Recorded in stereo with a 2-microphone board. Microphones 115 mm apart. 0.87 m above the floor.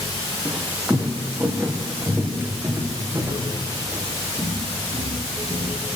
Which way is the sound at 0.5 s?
10° right (ahead or behind).